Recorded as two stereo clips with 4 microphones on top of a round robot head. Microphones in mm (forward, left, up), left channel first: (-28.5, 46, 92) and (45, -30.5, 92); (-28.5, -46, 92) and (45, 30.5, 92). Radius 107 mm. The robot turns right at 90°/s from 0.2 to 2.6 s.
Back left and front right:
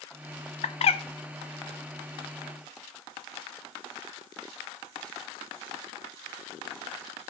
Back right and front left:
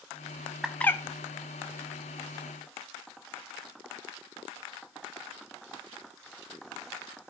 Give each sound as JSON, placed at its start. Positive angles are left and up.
{"t": 0.6, "sound": "a bird", "azimuth_deg": 130, "distance_m": 0.6}